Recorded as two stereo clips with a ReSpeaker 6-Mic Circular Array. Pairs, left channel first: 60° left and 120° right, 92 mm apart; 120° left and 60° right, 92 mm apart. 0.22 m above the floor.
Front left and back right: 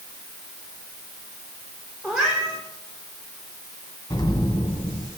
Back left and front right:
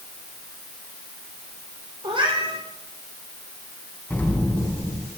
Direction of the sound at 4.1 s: 60° left.